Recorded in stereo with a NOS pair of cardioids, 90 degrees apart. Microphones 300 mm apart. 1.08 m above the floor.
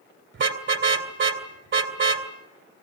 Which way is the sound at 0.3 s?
40° right.